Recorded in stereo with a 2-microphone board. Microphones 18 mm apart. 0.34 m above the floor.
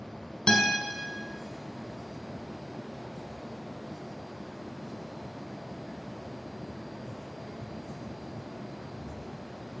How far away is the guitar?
About 1.2 m.